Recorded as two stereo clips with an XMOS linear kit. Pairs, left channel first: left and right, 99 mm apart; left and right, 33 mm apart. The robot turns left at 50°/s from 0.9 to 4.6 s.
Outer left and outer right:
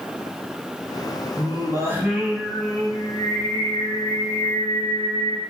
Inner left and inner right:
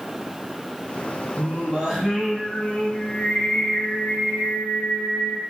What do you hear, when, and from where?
1.4 s singing: 130° right, 0.8 m; by 5.4 s 70° left, 0.8 m